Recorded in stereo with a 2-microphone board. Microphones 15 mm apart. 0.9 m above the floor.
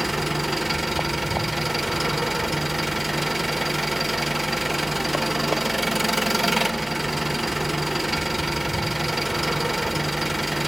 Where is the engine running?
10° right (ahead or behind), 1.7 m.